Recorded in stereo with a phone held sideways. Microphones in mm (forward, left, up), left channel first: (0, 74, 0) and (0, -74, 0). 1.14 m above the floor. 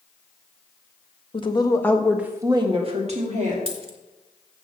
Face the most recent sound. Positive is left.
turn(degrees=-40)  # may be behind; listen again after turning